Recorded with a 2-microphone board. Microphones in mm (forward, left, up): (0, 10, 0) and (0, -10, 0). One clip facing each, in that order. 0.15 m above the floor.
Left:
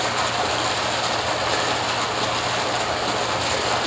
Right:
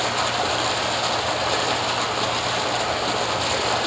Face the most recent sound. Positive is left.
turn(degrees=-5)  # may be behind; listen again after turning